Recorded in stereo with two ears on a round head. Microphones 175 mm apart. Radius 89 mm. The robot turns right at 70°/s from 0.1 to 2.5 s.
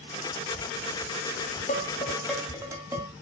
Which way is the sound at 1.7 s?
40° left (ahead or behind).